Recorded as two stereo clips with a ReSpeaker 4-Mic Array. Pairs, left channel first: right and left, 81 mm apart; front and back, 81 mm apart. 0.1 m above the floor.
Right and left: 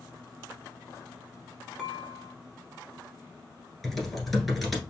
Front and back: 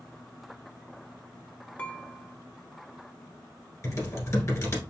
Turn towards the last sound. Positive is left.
turn(degrees=0)